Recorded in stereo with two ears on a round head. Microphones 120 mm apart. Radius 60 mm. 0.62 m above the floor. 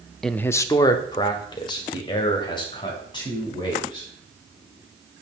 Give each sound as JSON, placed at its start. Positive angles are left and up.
{"t": 0.2, "sound": "a man speaking", "side_deg": 0, "distance_m": 0.5}